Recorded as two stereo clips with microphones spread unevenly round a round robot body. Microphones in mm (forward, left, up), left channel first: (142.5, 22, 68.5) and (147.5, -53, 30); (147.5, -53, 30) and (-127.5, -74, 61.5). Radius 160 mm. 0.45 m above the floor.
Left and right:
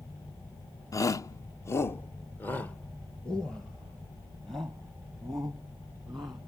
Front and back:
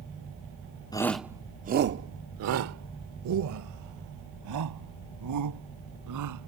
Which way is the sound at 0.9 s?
40° left.